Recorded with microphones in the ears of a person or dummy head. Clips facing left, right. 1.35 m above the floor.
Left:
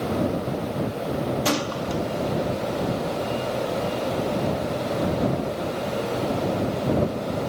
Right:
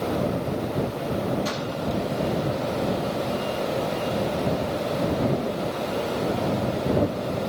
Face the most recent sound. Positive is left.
turn(degrees=70)  # may be behind; listen again after turning